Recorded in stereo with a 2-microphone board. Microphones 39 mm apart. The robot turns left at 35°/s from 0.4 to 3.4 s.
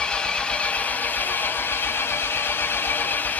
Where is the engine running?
155° left, 0.7 m; by 3.4 s 50° left, 0.7 m.